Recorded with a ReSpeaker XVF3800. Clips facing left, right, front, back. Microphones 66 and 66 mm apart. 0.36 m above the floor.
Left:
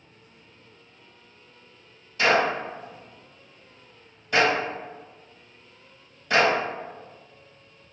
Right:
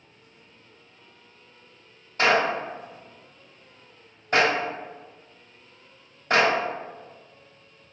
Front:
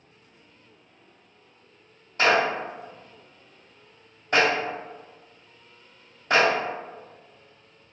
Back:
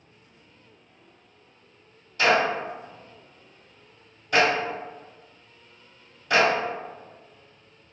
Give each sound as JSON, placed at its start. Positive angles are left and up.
{"t": 2.2, "sound": "a clap", "azimuth_deg": -50, "distance_m": 1.7}